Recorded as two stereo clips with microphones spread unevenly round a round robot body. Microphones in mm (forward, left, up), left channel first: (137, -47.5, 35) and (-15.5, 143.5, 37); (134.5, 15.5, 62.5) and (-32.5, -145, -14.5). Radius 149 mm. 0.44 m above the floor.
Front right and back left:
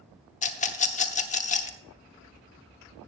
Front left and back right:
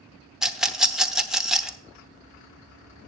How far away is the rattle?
About 0.9 m.